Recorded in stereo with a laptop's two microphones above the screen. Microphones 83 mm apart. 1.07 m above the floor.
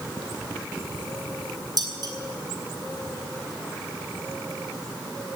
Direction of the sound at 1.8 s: 55° right (ahead or behind).